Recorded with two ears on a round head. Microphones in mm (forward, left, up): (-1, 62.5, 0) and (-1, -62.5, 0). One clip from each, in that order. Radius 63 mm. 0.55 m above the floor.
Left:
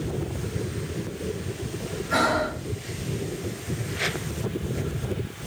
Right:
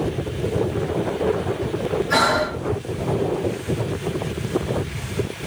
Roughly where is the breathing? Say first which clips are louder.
Right 3 dB; right.